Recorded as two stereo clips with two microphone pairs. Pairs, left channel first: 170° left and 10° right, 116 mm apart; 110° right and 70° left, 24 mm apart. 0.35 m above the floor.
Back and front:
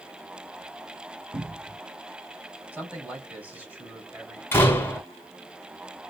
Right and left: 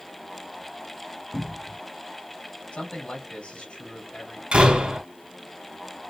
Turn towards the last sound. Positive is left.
turn(degrees=100)